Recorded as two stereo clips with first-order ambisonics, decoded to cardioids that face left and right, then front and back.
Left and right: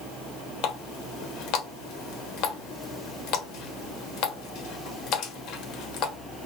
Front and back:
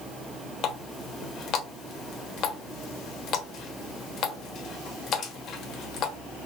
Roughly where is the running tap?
Ahead left.